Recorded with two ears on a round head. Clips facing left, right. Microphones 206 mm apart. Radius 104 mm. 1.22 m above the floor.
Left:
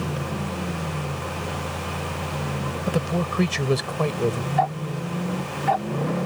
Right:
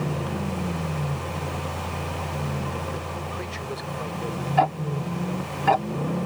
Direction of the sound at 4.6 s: 60° right (ahead or behind).